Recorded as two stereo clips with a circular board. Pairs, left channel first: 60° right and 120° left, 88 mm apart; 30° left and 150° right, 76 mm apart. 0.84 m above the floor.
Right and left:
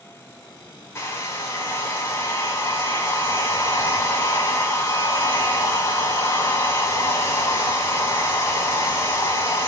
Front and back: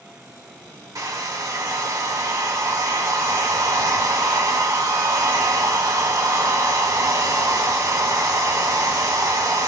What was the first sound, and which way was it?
A hair dryer, 115° right.